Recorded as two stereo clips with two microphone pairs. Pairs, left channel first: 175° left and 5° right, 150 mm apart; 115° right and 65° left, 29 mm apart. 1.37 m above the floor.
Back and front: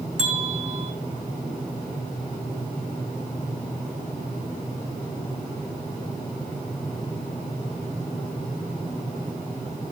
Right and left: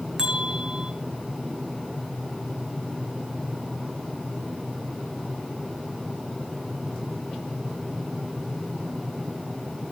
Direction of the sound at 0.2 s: 5° left.